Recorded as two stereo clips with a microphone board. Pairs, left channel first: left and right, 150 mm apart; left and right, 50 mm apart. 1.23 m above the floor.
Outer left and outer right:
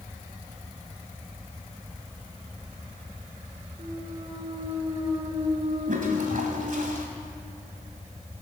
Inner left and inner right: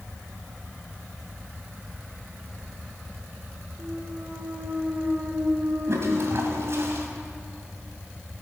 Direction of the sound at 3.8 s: 30° right (ahead or behind).